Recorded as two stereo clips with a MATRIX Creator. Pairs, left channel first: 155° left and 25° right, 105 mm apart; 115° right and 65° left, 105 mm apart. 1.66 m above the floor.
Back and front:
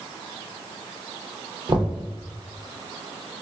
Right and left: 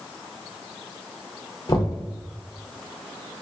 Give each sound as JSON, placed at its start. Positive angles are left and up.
{"t": 1.7, "sound": "knocking", "azimuth_deg": -65, "distance_m": 0.7}